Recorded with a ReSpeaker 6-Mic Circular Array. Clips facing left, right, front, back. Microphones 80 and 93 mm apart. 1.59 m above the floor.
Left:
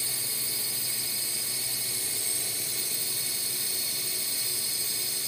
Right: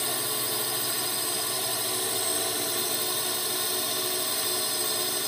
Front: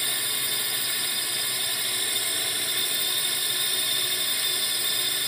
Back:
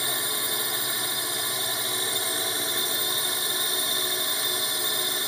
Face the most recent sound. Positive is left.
turn(degrees=-115)